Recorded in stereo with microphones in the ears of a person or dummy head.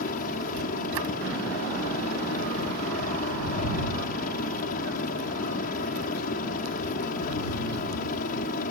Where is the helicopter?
50° left (ahead or behind).